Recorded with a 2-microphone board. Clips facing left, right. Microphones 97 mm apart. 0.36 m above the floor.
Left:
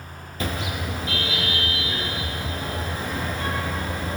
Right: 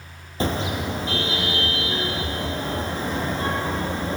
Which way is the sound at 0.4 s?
30° right (ahead or behind).